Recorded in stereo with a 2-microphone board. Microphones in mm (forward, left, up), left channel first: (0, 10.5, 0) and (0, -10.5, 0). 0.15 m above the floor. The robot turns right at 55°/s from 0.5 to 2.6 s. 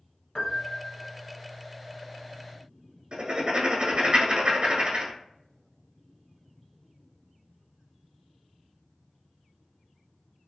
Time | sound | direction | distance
0.3 | a piano | 50° left | 0.9 m
3.1 | writing | 50° right (ahead or behind) | 1.1 m